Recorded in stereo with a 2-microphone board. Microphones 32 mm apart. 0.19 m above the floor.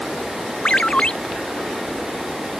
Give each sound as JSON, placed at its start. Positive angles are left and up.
{"t": 0.7, "sound": "a ringtone", "side_deg": 35}